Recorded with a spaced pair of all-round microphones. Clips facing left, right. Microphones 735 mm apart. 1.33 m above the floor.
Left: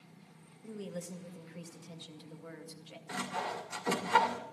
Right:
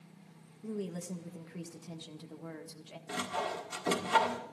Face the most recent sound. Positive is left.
turn(degrees=-60)  # may be behind; listen again after turning